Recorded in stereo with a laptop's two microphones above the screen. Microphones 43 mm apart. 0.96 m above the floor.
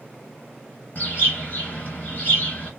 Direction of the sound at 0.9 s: 45° left (ahead or behind).